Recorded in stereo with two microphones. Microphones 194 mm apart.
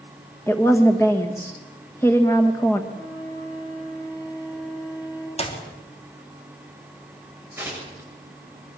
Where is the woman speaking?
15° left (ahead or behind), 1.5 m.